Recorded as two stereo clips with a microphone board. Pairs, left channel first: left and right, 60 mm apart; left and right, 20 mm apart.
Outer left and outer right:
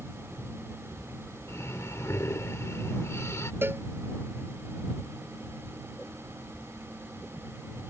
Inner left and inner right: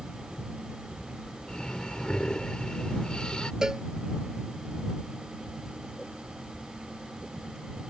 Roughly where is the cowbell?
Right.